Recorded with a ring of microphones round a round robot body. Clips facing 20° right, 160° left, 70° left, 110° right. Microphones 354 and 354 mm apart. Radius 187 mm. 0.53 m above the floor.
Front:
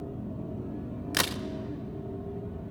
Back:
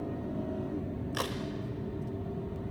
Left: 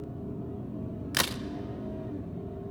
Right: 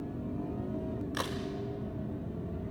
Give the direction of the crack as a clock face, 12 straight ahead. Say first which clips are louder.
Front 4 dB, left 1 dB; 11 o'clock.